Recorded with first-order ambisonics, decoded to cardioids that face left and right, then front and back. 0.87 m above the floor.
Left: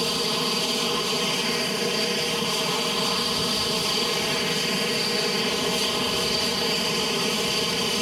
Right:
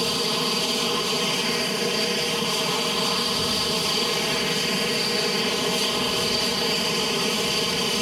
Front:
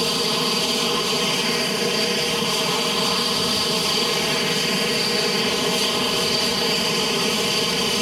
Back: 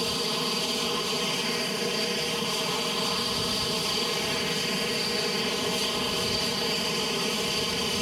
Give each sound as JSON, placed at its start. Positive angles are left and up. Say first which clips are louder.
{"t": 0.0, "sound": "an aircraft", "louder": "right 1 dB, front 7 dB", "azimuth_deg": -5}